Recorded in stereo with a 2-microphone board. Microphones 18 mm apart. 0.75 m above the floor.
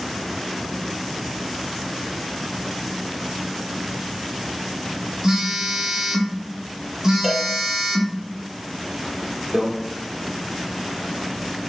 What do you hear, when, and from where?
5.2 s a phone buzzing: 45° right (ahead or behind), 0.8 m
7.2 s a cowbell: 10° right (ahead or behind), 0.7 m
9.5 s a microwave: 45° right (ahead or behind), 1.2 m